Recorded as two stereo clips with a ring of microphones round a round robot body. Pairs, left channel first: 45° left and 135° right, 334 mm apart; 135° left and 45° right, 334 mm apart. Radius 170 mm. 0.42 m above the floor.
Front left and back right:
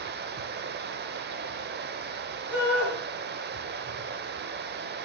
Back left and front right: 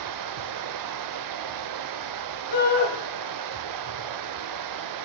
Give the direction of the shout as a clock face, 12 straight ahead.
7 o'clock.